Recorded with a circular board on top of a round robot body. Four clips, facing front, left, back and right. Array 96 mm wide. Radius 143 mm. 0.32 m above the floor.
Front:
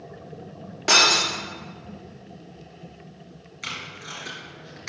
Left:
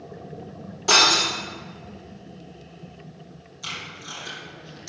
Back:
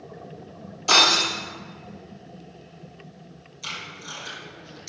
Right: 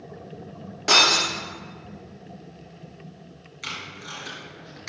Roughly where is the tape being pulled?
Ahead right.